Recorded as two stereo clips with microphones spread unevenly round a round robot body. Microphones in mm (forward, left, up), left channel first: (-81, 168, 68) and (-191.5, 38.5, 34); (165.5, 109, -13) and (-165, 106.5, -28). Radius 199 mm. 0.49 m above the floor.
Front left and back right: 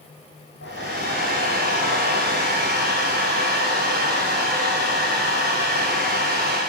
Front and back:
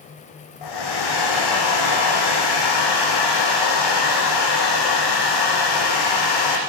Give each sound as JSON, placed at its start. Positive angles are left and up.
{"t": 0.6, "sound": "a hair dryer", "azimuth_deg": -10, "distance_m": 6.5}